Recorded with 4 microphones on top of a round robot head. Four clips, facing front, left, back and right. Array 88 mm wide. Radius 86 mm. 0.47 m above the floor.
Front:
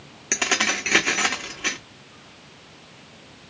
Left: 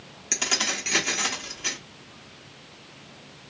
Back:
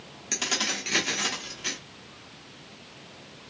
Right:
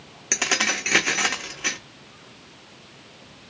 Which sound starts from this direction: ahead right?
Keys jangling, at 0.3 s.